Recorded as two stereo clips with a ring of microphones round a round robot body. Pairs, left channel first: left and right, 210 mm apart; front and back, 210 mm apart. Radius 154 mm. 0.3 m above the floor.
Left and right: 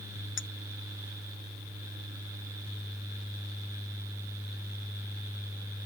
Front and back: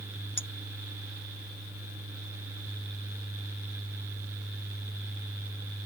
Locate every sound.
0.4 s a clink: 65° left